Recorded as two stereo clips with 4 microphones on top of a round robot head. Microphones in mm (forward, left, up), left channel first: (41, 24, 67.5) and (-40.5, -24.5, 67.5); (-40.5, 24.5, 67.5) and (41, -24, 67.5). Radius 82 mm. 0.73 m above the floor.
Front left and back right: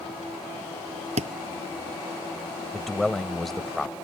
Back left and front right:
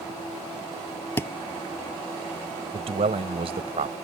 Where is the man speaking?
55° right.